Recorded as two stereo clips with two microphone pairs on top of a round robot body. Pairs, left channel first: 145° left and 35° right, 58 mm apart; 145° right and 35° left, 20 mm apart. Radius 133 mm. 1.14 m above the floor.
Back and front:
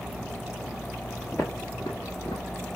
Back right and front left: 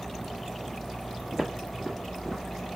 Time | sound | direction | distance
1.3 | footsteps | 85° left | 1.2 m